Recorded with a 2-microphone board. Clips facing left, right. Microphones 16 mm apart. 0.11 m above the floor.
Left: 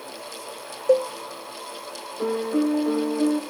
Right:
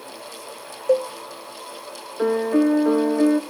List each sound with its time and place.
0.9 s a cowbell: 10° left (ahead or behind), 1.0 m
2.2 s a piano: 85° right, 2.0 m